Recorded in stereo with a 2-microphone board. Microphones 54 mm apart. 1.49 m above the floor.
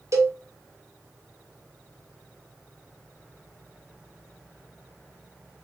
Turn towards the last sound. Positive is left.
turn(degrees=-60)  # may be behind; listen again after turning